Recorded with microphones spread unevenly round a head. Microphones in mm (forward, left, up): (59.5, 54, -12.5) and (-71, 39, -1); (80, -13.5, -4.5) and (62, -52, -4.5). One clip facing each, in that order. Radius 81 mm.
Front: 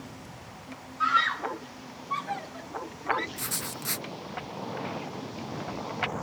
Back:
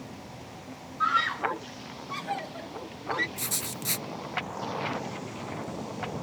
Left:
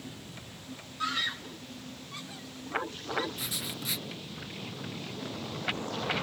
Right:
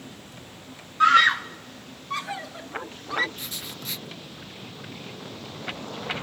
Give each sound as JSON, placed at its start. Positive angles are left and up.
{"t": 1.0, "sound": "a scream", "azimuth_deg": -75}
{"t": 3.4, "sound": "writing", "azimuth_deg": 145}